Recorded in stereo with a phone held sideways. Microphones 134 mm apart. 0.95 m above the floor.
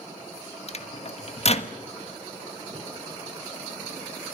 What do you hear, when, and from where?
0.7 s a microwave: 50° left (ahead or behind), 1.3 m